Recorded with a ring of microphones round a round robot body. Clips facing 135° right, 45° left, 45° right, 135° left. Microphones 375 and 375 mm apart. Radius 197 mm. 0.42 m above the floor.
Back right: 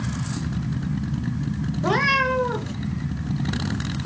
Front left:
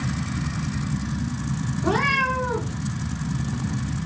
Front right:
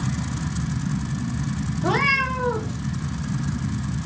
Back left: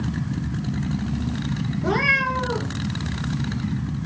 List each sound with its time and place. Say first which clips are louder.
1.8 s a cat meowing: back right 1 dB, even; 125° right, 1.0 m